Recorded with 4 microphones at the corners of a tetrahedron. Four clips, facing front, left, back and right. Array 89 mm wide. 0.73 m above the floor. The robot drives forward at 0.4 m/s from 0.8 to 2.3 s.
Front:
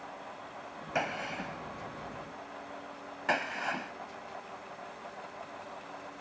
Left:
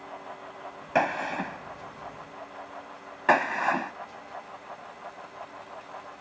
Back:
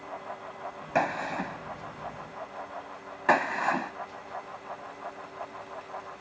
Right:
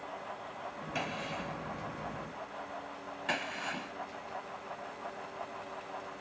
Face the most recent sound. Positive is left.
turn(degrees=125)